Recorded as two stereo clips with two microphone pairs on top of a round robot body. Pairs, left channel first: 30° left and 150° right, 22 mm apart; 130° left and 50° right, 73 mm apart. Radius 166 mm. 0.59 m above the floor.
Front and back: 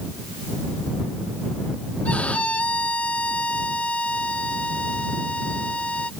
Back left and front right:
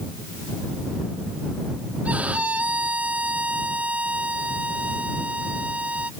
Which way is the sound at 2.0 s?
25° left.